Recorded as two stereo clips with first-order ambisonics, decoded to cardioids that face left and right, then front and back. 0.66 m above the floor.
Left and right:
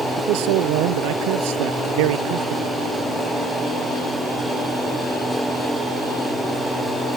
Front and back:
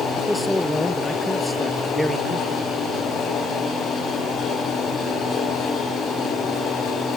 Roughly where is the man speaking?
Right.